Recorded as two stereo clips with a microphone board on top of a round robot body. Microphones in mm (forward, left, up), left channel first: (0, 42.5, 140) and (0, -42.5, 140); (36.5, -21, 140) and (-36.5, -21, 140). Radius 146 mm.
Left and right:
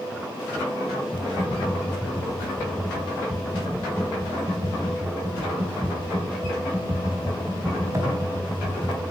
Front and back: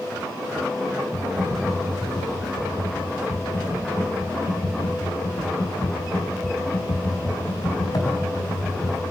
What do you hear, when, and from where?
1.1 s typing on a keyboard: 35° right, 5 m